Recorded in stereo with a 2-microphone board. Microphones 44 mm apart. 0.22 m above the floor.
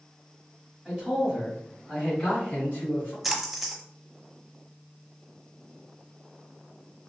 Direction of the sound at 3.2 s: 5° right (ahead or behind).